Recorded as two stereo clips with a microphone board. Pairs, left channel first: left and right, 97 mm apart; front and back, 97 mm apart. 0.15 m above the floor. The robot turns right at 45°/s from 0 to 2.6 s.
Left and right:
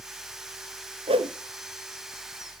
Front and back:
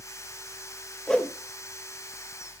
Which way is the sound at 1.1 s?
85° right.